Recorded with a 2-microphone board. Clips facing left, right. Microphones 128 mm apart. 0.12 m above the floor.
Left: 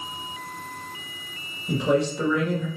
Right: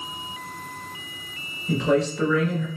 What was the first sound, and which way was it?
A man speaking, 20° left (ahead or behind).